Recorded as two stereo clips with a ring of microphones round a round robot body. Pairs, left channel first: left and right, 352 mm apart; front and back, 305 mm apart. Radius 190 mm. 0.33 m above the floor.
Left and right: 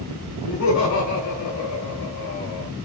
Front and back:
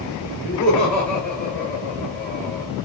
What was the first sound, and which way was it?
Laughter, 85° left.